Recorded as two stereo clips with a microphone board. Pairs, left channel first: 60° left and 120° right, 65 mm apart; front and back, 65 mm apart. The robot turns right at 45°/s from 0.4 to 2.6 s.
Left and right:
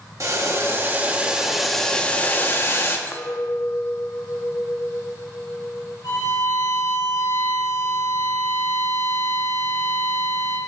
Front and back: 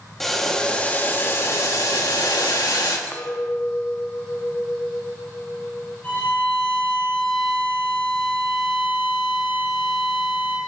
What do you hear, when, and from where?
0.2 s boiling: 85° right, 2 m; by 3.0 s 15° left, 2 m
3.1 s a clink: 40° left, 0.7 m
6.0 s a violin: 65° left, 7.5 m